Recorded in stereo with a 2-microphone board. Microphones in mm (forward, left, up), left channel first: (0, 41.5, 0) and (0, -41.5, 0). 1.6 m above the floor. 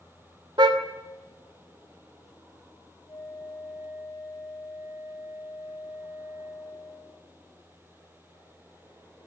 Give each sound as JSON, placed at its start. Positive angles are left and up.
{"t": 0.6, "sound": "a car horn", "side_deg": -65, "distance_m": 2.5}
{"t": 3.1, "sound": "a flute", "side_deg": 55, "distance_m": 4.5}